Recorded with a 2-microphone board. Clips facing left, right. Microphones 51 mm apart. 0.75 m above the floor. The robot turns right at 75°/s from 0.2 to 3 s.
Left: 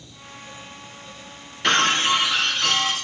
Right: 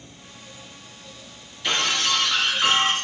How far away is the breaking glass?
About 2.5 m.